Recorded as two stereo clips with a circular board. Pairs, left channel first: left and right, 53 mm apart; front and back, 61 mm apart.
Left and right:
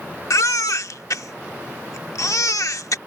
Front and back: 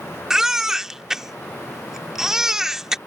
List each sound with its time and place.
0.3 s a baby crying: 95° left